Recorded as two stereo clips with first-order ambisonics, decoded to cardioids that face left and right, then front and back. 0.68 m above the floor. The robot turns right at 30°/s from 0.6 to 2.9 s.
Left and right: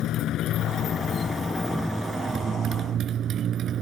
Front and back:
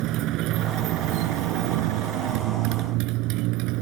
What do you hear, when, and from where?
0.0 s a motorcycle: 140° left; by 3.8 s 150° right